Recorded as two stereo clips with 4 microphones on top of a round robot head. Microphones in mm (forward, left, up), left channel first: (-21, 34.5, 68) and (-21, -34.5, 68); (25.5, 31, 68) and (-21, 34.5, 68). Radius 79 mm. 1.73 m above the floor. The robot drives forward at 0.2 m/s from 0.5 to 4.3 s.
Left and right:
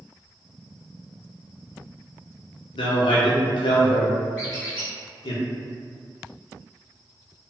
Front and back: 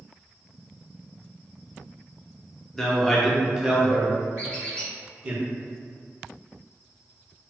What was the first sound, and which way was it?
A man speaking, 75° left.